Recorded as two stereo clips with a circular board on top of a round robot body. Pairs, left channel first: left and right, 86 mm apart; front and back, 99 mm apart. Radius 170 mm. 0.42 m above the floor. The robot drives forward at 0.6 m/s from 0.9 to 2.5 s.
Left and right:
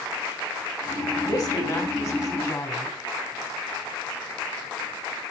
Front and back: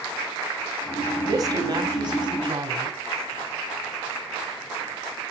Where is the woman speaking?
150° left, 2 m; by 3.0 s 160° left, 2.5 m.